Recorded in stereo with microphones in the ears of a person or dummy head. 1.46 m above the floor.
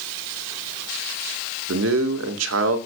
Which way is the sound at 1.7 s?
85° right.